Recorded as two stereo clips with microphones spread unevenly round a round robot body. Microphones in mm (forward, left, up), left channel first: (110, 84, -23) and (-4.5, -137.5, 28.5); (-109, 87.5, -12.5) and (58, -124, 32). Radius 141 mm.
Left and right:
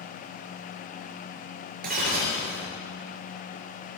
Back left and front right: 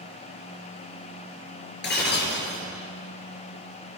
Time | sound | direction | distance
1.8 | breaking glass | straight behind | 6 m